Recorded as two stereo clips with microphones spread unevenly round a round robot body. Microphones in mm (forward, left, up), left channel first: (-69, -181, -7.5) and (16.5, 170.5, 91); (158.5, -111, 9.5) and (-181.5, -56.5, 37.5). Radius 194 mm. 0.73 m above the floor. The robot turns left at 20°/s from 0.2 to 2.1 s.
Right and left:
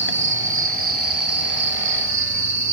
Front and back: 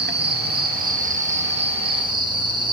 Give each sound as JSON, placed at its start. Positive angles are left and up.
{"t": 0.0, "sound": "an insect", "azimuth_deg": 135, "distance_m": 0.8}